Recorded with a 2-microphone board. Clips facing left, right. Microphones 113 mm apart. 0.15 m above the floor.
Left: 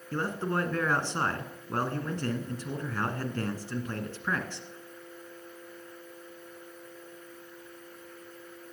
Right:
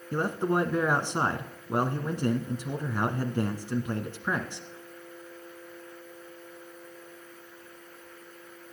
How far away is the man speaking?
About 1.3 m.